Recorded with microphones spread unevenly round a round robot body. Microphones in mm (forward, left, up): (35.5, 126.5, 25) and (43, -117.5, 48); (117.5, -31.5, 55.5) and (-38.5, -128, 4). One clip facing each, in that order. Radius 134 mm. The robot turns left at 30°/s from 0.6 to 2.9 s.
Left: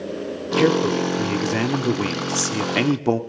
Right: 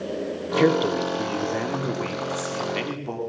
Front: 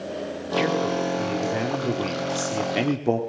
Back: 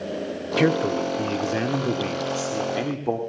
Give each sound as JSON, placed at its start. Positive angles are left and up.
{"t": 0.6, "sound": "a man speaking", "azimuth_deg": 175, "distance_m": 2.5}